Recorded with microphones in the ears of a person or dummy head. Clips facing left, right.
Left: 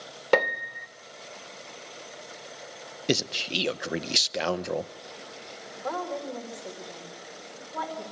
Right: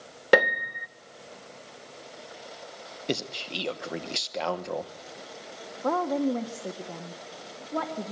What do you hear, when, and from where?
0.3 s a piano: 15° right (ahead or behind), 0.6 m
3.1 s a man speaking: 25° left (ahead or behind), 1.0 m
5.8 s a woman speaking: 60° right (ahead or behind), 1.8 m